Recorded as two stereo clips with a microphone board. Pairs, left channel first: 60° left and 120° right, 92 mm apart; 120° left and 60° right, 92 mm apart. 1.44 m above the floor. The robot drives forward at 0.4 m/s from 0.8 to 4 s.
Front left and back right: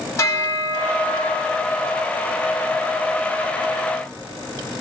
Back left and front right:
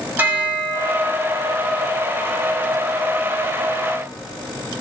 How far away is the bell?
About 4 m.